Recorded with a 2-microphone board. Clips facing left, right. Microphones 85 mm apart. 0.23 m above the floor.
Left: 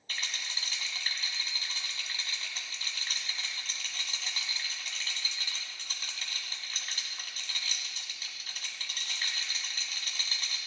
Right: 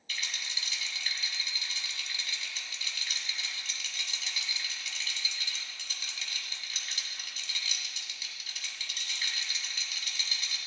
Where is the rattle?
40° left (ahead or behind), 1.8 m.